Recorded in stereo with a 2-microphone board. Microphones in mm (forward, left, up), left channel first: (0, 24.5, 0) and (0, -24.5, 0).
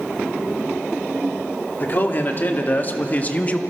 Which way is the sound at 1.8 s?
40° left (ahead or behind).